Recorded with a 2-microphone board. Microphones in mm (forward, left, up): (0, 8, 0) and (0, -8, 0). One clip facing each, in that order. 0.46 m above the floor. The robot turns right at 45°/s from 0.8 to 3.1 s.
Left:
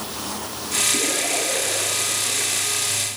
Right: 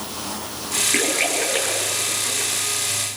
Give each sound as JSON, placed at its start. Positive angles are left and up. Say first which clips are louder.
{"t": 0.9, "sound": "a splash", "louder": "right 2 dB", "side_deg": -70, "distance_m": 8.5}